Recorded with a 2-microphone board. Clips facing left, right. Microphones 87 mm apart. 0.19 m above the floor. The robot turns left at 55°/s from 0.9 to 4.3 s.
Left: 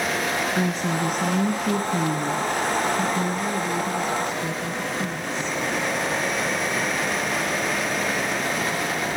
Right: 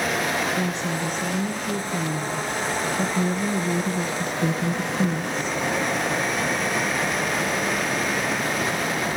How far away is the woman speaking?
About 1.8 m.